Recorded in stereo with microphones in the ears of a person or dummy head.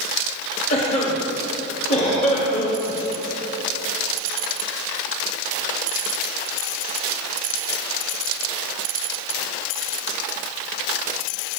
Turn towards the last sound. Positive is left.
turn(degrees=40)  # may be behind; listen again after turning